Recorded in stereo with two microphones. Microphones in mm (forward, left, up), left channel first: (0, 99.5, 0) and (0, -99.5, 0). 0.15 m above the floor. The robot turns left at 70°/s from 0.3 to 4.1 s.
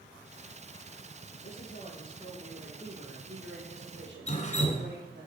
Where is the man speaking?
75° left, 4 m; by 5.3 s 115° right, 4 m.